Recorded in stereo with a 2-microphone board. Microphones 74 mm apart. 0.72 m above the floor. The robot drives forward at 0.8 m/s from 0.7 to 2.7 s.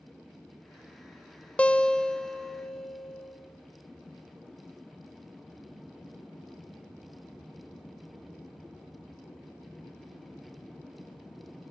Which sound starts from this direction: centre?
A guitar, at 1.6 s.